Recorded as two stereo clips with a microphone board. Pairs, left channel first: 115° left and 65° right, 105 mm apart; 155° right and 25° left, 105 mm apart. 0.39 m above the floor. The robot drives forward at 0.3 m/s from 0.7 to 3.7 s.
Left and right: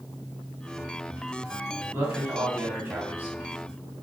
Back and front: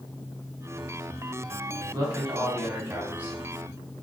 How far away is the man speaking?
About 1.4 m.